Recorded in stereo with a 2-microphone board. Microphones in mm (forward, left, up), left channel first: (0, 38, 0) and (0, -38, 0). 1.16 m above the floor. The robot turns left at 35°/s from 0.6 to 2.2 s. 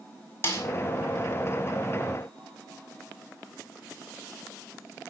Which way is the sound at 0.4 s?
30° left (ahead or behind).